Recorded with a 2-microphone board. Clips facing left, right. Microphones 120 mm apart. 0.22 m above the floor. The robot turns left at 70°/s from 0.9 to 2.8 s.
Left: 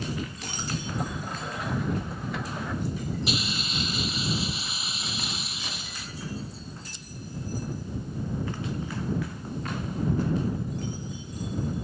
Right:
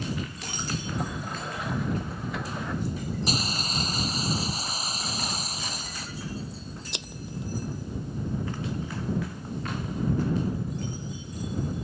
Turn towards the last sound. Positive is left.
turn(degrees=-80)